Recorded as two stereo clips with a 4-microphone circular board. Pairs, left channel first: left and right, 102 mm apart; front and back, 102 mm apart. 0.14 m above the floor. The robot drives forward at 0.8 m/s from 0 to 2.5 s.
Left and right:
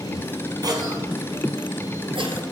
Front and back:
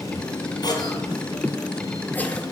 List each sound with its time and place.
0.6 s a cough: 45° right, 2.5 m; by 2.4 s 75° right, 2 m